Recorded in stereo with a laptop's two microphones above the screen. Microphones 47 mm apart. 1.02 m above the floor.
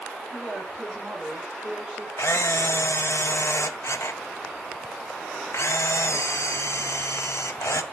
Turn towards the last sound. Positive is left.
turn(degrees=75)  # may be behind; listen again after turning